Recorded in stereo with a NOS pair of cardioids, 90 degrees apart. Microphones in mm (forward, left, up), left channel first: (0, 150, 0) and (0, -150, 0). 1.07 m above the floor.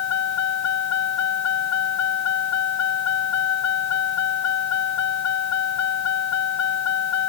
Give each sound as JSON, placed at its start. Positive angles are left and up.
{"t": 0.0, "sound": "a vehicle", "azimuth_deg": 60}